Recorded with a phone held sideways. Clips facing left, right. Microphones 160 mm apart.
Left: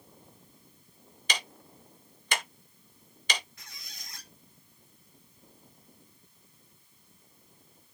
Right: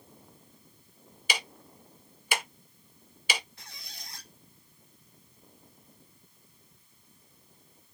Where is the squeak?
30° right (ahead or behind), 1.3 m.